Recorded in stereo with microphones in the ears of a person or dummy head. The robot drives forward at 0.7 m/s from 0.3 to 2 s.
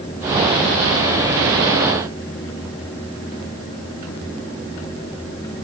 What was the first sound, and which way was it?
Only background noise.